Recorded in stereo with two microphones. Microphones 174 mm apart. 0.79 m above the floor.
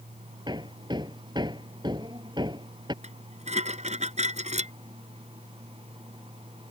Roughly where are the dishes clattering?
Right.